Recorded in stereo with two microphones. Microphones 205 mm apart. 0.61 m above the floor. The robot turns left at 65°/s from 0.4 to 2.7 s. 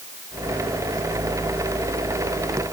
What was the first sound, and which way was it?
Only background noise.